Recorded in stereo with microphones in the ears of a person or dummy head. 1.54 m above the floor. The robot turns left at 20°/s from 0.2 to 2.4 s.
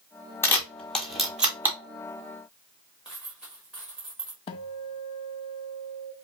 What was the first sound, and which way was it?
A camera shutter, 10° left (ahead or behind).